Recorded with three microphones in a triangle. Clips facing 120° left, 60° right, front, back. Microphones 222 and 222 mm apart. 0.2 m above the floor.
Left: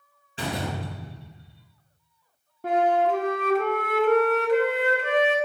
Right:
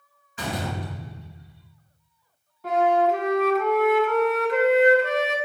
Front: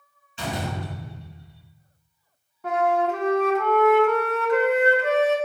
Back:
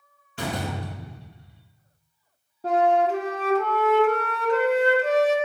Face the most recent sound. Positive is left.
turn(degrees=135)